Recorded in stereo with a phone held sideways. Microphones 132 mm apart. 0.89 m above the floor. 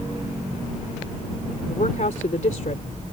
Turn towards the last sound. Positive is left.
turn(degrees=70)  # may be behind; listen again after turning